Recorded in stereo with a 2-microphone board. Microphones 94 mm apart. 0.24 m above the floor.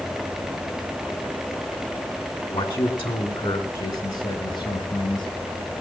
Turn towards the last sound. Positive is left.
turn(degrees=65)  # may be behind; listen again after turning